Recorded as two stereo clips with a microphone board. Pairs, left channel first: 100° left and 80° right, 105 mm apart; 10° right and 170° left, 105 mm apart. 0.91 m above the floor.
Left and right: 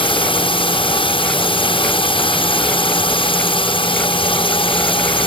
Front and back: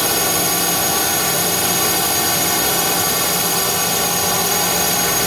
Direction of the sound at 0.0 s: 80° left.